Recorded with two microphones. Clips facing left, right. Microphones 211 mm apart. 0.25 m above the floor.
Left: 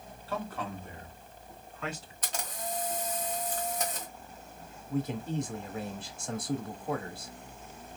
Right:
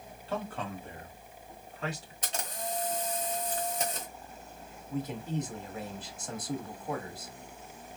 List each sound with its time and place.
0.3 s a man speaking: 20° right (ahead or behind), 1.5 m; by 2.1 s 40° right (ahead or behind), 3 m
2.2 s a camera shutter: 25° right (ahead or behind), 1.7 m
4.9 s a man speaking: 10° left (ahead or behind), 1.1 m